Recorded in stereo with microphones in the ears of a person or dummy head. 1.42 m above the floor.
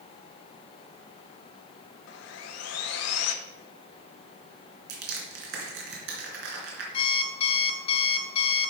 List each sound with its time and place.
2.1 s sawing: 80° left, 0.9 m
4.9 s crushing: 65° right (ahead or behind), 3 m
6.9 s an alarm clock: 35° left (ahead or behind), 1.3 m